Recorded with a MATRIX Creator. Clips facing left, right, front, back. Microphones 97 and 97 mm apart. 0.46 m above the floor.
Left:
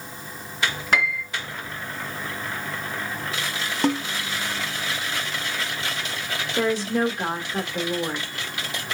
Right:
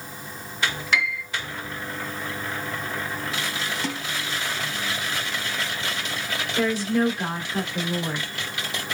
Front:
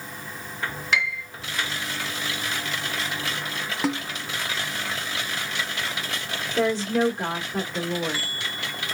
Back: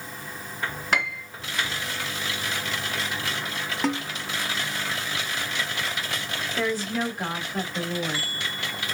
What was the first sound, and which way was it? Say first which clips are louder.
A piano: left 4 dB, front 1 dB; 135° left.